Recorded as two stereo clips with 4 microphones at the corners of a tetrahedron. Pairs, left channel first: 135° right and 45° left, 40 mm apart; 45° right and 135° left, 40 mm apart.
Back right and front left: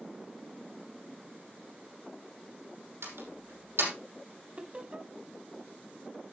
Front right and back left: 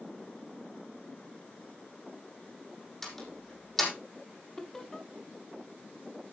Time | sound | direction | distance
3.0 | a door slam | 40° left | 5.5 m
4.6 | laughter | 20° left | 1.1 m